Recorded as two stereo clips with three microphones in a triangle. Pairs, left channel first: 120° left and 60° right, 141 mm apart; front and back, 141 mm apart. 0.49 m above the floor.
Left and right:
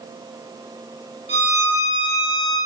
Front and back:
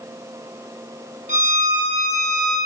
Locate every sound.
1.3 s a violin: 155° left, 4 m